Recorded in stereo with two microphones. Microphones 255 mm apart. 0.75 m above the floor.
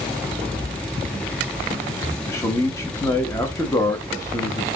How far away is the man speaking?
About 1.0 m.